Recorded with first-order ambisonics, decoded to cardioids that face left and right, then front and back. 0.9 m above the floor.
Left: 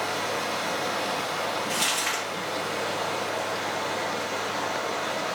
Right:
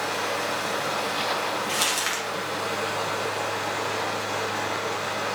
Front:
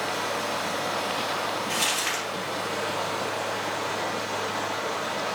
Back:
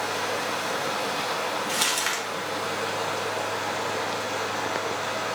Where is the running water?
105° right, 1.7 m.